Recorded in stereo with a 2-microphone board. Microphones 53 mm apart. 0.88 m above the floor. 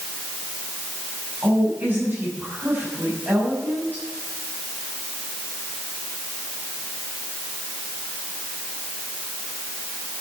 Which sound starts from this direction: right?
A woman speaking, at 1.4 s.